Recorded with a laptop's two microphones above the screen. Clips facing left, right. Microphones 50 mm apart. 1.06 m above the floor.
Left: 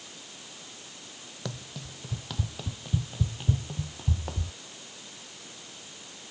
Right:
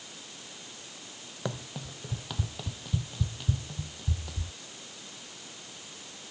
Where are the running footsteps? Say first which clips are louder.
Right 3 dB; 20° right (ahead or behind); by 4.5 s 45° left (ahead or behind).